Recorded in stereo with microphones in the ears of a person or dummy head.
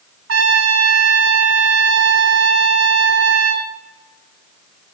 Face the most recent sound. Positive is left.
turn(degrees=-75)  # may be behind; listen again after turning